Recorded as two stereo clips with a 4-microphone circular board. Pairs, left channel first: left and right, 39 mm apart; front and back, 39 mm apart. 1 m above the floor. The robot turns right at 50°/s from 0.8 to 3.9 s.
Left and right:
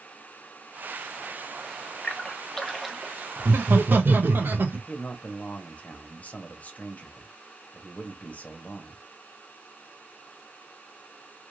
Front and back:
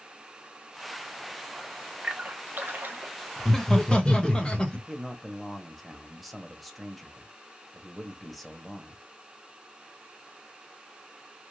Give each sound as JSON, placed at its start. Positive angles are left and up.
{"t": 2.0, "sound": "a splash", "azimuth_deg": 145, "distance_m": 0.6}
{"t": 3.4, "sound": "laughter", "azimuth_deg": -90, "distance_m": 0.7}
{"t": 4.9, "sound": "a man speaking", "azimuth_deg": 90, "distance_m": 0.8}